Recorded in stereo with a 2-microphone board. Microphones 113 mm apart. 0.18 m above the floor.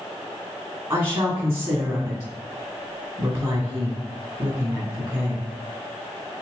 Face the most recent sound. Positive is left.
turn(degrees=-25)  # may be behind; listen again after turning